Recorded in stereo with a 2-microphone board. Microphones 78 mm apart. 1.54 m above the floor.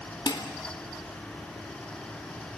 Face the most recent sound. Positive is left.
turn(degrees=65)  # may be behind; listen again after turning